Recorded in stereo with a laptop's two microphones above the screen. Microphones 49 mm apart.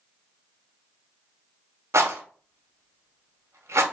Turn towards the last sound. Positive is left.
turn(degrees=-65)  # may be behind; listen again after turning